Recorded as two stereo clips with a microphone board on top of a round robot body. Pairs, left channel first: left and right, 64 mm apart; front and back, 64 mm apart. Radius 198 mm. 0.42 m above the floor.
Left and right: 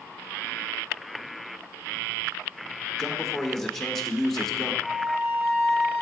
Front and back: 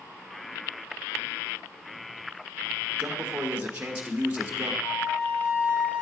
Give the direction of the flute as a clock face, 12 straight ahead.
12 o'clock.